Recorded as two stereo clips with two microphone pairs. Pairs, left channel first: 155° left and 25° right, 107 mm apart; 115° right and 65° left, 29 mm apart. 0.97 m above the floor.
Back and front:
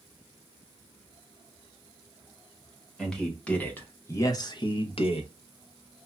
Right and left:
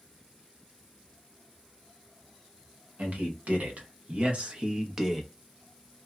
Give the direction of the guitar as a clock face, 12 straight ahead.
I don't hear a guitar.